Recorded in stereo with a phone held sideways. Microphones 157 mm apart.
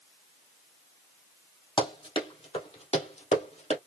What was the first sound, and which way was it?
Running footsteps, 35° left (ahead or behind).